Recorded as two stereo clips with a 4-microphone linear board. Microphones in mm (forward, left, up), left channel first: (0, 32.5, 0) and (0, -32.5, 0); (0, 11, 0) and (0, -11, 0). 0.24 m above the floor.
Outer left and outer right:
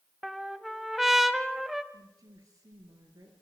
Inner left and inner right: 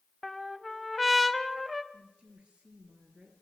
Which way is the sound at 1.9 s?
65° right (ahead or behind).